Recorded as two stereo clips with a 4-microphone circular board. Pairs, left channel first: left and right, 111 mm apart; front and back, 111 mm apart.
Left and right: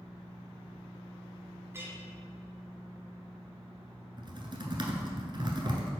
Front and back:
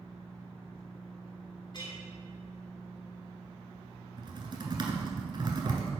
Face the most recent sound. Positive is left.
turn(degrees=-135)